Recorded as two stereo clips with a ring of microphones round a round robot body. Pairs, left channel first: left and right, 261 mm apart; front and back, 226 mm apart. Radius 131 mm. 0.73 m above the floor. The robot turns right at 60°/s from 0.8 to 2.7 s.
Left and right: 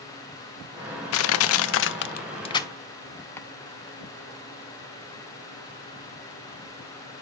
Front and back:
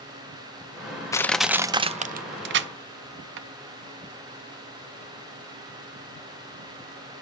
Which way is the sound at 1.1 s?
75° left.